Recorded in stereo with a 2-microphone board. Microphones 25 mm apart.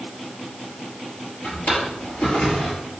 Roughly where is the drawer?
Left.